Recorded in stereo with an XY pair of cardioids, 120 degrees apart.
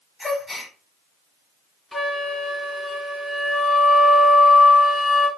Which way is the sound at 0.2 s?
15° left.